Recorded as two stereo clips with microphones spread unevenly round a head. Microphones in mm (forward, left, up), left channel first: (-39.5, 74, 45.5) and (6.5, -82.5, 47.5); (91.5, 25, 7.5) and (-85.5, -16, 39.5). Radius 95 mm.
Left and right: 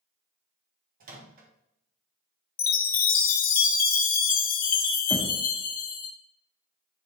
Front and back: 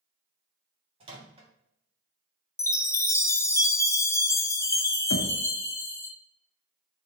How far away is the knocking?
About 1.0 m.